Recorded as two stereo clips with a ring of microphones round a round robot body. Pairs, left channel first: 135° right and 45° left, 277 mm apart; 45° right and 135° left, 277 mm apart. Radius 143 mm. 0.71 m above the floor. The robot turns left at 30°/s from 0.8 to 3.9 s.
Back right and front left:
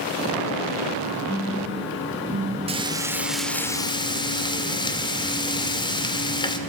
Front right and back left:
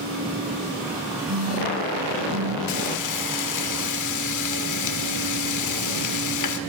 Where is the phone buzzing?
145° left, 6 m; by 2.6 s 105° left, 6 m.